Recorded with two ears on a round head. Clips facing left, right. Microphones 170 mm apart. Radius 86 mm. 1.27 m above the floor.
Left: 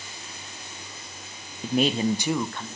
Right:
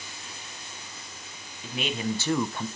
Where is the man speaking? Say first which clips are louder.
Left 8 dB; 40° left (ahead or behind), 1.0 m; by 2.7 s 15° right (ahead or behind), 0.7 m.